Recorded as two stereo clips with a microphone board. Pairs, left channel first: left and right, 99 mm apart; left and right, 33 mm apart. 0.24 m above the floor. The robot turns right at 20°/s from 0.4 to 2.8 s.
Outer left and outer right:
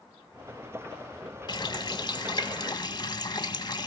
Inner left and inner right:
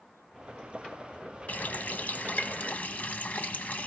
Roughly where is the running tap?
Left.